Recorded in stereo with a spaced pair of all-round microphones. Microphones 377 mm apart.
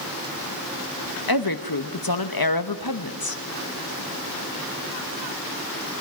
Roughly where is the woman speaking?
Left.